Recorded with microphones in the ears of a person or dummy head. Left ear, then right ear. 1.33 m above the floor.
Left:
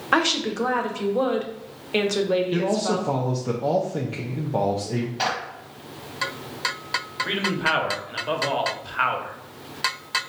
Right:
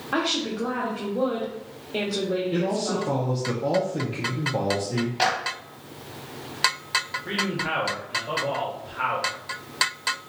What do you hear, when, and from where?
0.1 s a woman speaking: 55° left (ahead or behind), 0.9 m
2.5 s a man speaking: 15° left (ahead or behind), 0.5 m
5.2 s a clap: 15° right (ahead or behind), 0.9 m
7.2 s a man speaking: 55° left (ahead or behind), 1.1 m